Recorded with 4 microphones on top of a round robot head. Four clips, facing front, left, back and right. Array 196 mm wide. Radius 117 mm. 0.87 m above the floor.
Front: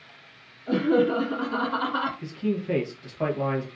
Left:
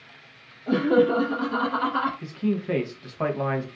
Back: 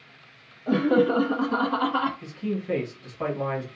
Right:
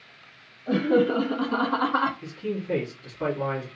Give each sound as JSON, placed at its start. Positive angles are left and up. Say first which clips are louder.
{"t": 0.7, "sound": "laughter", "louder": "left 2 dB, back 1 dB", "azimuth_deg": 165, "distance_m": 0.9}
{"t": 2.2, "sound": "a man speaking", "louder": "left 4 dB, front 2 dB", "azimuth_deg": 75, "distance_m": 0.9}